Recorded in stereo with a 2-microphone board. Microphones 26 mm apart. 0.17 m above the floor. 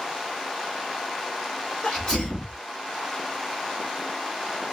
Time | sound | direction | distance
1.8 | a sneeze | 25° left (ahead or behind) | 2 m